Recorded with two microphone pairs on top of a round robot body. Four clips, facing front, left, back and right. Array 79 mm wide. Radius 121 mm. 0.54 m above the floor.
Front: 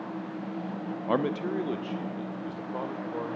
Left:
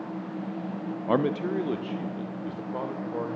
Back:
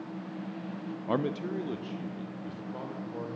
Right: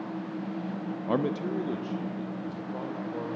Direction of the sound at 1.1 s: 35° left.